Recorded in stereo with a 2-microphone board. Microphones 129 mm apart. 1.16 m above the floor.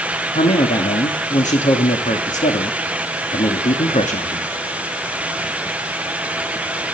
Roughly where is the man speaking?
Left.